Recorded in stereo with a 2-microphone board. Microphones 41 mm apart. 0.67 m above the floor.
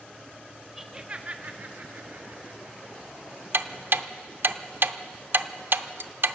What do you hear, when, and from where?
0.8 s laughter: 10° right (ahead or behind), 0.9 m; by 3.4 s 65° right (ahead or behind), 2.5 m
3.5 s ticking: 60° right (ahead or behind), 0.6 m